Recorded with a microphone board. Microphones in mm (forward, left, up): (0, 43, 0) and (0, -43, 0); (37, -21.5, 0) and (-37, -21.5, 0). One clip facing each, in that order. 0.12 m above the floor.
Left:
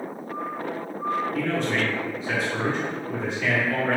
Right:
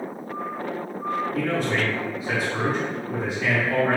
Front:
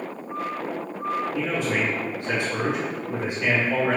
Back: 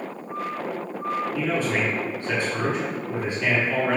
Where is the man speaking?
20° right, 1.2 m.